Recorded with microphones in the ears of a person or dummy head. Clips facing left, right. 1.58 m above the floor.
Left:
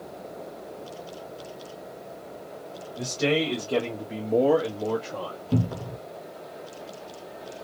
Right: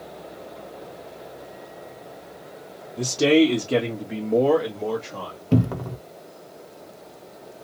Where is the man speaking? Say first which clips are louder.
Right 8 dB; 65° right (ahead or behind), 0.9 m; by 5.4 s 15° left (ahead or behind), 1.5 m.